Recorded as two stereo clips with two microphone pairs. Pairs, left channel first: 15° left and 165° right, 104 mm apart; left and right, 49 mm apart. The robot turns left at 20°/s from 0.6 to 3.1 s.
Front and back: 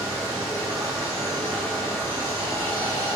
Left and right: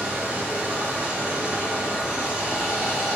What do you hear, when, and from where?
0.0 s running water: 125° right, 1.6 m; by 3.2 s 175° right, 1.6 m